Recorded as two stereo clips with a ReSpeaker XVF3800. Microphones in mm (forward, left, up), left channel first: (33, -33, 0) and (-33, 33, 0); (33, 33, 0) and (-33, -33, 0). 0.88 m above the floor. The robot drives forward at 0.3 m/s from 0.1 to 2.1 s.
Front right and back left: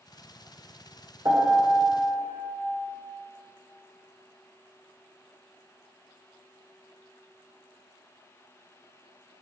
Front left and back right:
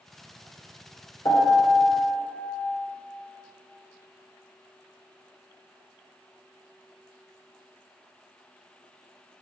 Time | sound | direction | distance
1.2 | a piano | 85° left | 2.5 m